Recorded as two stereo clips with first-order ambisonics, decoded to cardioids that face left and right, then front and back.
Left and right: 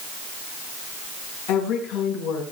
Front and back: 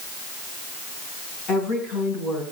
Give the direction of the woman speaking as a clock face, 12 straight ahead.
10 o'clock.